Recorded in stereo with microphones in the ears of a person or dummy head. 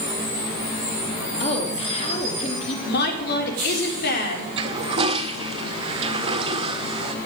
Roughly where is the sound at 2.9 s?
Left.